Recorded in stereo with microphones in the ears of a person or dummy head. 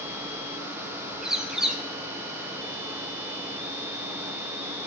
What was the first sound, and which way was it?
A bird, 5° right (ahead or behind).